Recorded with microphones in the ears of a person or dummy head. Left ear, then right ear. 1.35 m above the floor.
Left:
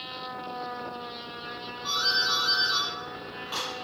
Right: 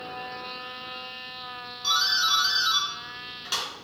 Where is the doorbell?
65° right (ahead or behind), 5.5 m.